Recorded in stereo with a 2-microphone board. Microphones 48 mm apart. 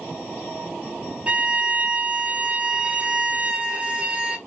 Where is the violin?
25° right (ahead or behind), 0.6 m.